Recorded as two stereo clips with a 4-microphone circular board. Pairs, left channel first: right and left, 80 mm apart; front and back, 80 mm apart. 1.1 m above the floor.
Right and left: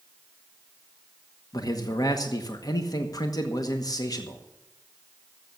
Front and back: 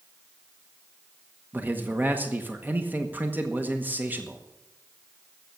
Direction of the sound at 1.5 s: 115° right.